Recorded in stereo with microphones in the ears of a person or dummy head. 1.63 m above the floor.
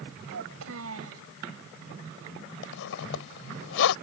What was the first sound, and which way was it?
A child speaking, 80° right.